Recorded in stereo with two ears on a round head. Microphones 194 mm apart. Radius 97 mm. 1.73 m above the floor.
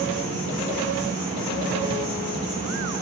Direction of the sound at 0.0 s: 60° left (ahead or behind).